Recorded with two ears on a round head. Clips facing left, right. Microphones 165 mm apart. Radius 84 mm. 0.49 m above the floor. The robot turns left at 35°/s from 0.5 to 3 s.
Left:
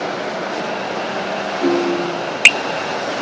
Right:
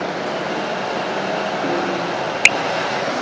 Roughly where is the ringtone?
Left.